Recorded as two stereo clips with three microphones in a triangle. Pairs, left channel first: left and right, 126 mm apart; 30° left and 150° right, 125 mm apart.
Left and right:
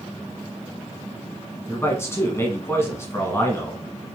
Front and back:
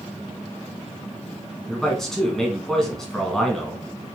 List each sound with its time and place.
1.7 s a man speaking: 110° left, 1.3 m